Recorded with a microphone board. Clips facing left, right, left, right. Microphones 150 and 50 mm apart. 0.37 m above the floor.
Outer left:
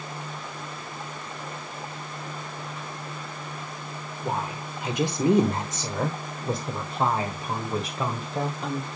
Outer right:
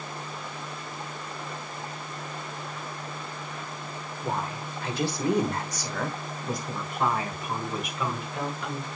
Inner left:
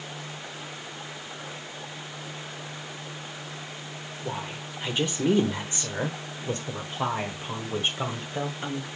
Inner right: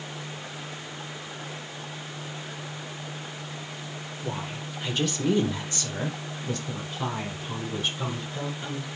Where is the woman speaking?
10° left (ahead or behind), 1.4 m; by 8.9 s 30° left (ahead or behind), 2.5 m.